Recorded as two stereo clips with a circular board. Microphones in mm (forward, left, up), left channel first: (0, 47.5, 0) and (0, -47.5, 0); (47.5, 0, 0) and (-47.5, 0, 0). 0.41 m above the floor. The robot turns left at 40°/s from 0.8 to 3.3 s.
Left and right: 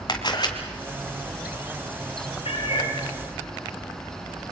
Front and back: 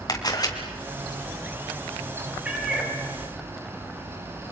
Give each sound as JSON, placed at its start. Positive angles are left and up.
{"t": 0.1, "sound": "a camera shutter", "azimuth_deg": 45, "distance_m": 3.0}
{"t": 2.5, "sound": "a cat meowing", "azimuth_deg": 105, "distance_m": 4.5}